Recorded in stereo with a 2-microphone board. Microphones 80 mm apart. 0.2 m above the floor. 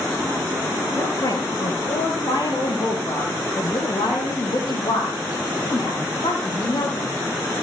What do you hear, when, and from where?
0.9 s a woman speaking: 40° left (ahead or behind), 3.5 m; by 7.2 s 65° left (ahead or behind), 9 m